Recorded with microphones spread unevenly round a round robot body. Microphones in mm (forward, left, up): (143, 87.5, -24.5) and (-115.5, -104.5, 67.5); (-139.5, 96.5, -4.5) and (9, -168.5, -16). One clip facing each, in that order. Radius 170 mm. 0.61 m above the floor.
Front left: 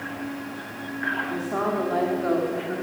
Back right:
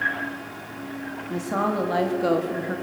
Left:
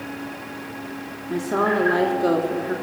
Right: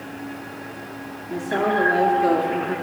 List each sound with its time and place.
1.3 s a woman speaking: straight behind, 1.5 m; by 2.8 s 140° right, 1.4 m